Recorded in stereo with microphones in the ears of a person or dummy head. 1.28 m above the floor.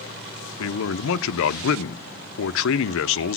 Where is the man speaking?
65° left (ahead or behind), 0.6 m.